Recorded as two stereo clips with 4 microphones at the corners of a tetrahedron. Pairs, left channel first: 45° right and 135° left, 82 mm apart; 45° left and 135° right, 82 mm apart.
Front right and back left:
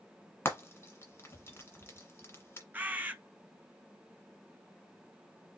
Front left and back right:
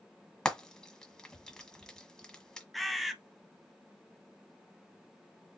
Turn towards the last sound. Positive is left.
turn(degrees=135)